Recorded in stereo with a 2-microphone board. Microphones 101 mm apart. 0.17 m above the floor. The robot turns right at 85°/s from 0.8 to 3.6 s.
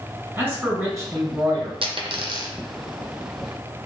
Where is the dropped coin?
75° right (ahead or behind), 0.5 m; by 2.5 s 45° right (ahead or behind), 0.5 m.